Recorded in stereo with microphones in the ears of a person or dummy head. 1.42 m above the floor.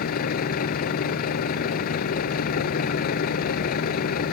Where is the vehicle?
55° left (ahead or behind).